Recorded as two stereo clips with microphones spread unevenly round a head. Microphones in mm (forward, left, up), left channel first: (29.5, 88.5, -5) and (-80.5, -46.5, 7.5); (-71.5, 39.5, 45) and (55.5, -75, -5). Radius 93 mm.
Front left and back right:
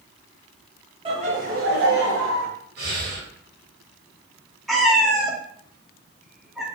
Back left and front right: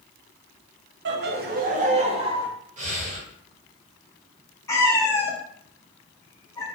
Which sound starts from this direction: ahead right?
Laughter, at 1.1 s.